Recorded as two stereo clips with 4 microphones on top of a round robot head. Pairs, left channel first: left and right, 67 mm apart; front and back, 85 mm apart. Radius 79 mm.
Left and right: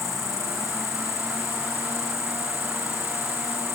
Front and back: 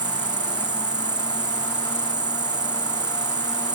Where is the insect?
145° left.